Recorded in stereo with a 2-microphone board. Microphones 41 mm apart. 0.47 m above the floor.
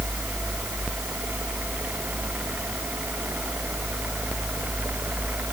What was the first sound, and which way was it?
Only background noise.